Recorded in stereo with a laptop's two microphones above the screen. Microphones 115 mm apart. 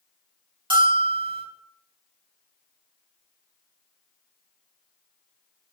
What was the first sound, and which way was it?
A bell, 45° right (ahead or behind).